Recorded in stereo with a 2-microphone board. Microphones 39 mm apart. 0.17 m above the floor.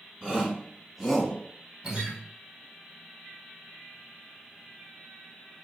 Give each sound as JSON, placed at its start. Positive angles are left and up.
{"t": 0.2, "sound": "a shout", "side_deg": -25, "distance_m": 1.7}
{"t": 1.8, "sound": "a guitar", "side_deg": -40, "distance_m": 2.5}